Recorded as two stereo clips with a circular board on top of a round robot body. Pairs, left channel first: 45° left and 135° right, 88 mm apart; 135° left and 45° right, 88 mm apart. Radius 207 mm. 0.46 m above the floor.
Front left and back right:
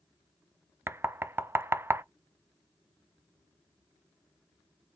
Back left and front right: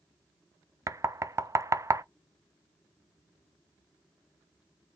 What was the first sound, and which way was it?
Knocking, 85° right.